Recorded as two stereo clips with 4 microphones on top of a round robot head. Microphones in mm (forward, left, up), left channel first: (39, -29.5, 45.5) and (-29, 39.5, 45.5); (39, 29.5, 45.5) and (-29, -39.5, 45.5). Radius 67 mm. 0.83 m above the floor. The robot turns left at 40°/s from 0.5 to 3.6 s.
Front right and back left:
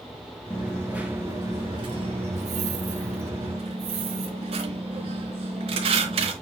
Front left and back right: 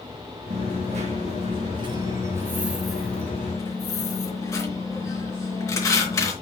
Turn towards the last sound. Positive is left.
turn(degrees=105)